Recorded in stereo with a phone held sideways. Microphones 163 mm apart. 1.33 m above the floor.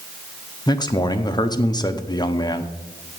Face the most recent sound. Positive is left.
turn(degrees=25)  # may be behind; listen again after turning